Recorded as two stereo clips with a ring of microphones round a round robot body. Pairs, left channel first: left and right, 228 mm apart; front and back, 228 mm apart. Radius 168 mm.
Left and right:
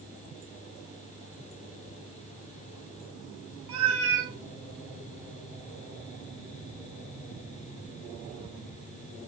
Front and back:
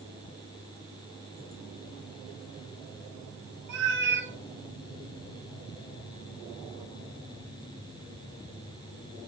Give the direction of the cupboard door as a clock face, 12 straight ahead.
I don't hear a cupboard door.